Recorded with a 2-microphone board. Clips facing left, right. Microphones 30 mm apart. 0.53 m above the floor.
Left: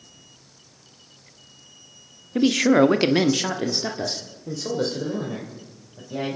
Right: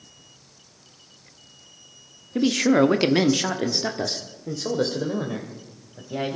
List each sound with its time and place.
2.4 s a man speaking: 15° left (ahead or behind), 1.0 m; by 6.4 s 15° right (ahead or behind), 3 m